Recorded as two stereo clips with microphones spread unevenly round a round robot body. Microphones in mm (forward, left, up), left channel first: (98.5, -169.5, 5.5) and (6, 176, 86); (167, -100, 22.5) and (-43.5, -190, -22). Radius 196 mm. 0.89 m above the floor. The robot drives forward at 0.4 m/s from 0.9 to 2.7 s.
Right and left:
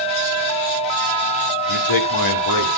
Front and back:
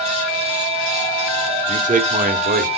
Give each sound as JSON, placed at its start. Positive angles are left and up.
{"t": 1.7, "sound": "a man speaking", "azimuth_deg": -100, "distance_m": 2.0}